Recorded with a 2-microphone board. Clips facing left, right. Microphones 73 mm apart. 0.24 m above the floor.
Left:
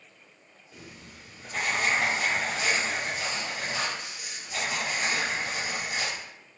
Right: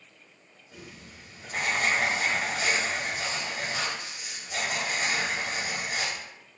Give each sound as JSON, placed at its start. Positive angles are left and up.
{"t": 0.7, "sound": "writing", "side_deg": -45, "distance_m": 1.8}